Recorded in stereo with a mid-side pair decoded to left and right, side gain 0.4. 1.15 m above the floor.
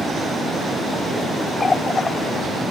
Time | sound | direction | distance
1.6 | a running tap | 35° left | ?